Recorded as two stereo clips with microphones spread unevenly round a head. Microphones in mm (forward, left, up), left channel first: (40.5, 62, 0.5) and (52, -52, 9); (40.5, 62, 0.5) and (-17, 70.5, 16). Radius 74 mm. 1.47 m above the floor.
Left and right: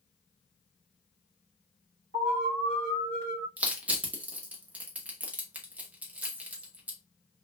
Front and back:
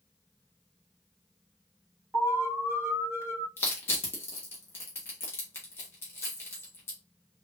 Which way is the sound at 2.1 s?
130° left.